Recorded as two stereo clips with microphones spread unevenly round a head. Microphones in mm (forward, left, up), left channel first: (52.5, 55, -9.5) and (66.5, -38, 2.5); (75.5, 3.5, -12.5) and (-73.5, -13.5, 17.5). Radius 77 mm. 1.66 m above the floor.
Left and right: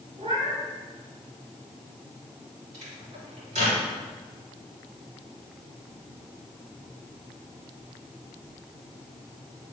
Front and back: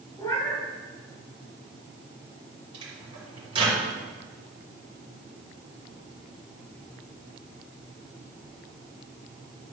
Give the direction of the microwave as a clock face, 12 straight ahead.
4 o'clock.